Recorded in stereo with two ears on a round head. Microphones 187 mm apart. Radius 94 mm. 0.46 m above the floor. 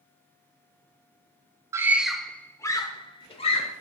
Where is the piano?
No piano in this recording.